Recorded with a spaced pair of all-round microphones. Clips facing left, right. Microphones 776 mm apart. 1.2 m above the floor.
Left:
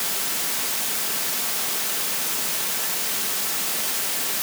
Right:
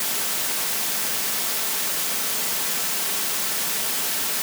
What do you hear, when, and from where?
Only background noise.